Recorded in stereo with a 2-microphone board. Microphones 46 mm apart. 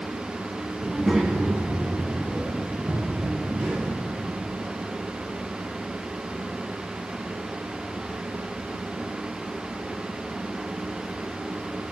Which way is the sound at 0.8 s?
Centre (ahead or behind).